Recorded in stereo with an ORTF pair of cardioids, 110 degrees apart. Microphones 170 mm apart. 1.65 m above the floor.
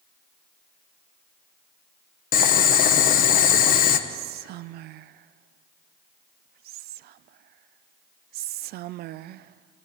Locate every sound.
2.3 s boiling: 55° left, 1.5 m
4.1 s whispering: 70° right, 0.5 m